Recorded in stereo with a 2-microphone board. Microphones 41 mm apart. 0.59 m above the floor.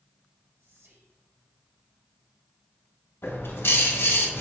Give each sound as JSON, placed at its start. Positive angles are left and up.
{"t": 0.6, "sound": "whispering", "side_deg": -75, "distance_m": 3.0}
{"t": 3.2, "sound": "a bird", "side_deg": 70, "distance_m": 1.9}